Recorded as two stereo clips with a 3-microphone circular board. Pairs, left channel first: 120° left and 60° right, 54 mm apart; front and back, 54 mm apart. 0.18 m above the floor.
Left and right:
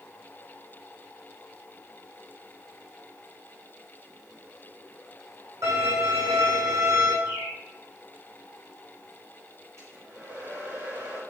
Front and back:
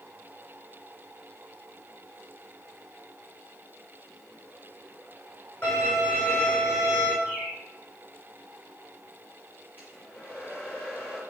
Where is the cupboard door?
No cupboard door in this recording.